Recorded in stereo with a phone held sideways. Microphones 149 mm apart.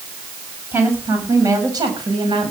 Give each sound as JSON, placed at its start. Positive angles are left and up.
{"t": 0.7, "sound": "a woman speaking", "side_deg": -15, "distance_m": 6.0}